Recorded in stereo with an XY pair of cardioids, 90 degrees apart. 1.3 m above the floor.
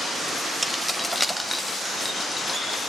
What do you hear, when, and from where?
0.6 s keys jangling: 10° right, 0.9 m; by 2.8 s 25° left, 2 m